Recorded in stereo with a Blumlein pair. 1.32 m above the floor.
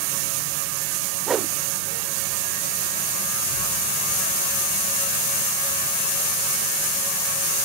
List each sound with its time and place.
1.3 s a whoosh: 20° right, 0.7 m